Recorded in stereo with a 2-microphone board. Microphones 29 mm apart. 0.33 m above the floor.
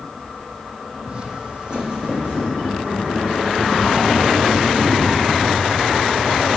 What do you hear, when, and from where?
1.1 s footsteps: 35° right (ahead or behind), 0.8 m; by 5.4 s 30° right (ahead or behind), 3.5 m